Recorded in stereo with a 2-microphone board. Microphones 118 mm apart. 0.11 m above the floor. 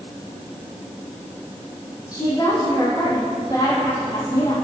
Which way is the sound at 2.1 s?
30° left (ahead or behind).